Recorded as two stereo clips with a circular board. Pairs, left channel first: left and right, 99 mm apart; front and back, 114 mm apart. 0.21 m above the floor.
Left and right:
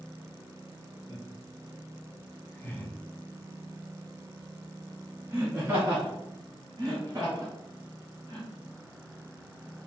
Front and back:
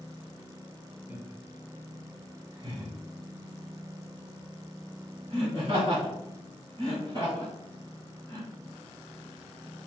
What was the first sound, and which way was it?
Laughter, 110° left.